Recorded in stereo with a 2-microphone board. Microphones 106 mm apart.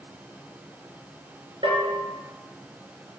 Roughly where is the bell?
Right.